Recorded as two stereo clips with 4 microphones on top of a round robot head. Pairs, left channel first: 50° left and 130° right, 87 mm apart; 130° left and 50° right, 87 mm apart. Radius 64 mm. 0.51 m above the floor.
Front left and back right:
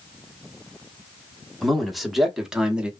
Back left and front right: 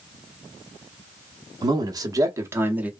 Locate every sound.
1.6 s a man speaking: 40° right, 1.2 m; by 2.9 s 80° right, 0.8 m